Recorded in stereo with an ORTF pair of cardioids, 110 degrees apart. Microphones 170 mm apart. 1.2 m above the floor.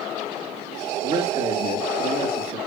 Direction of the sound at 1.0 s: 35° right.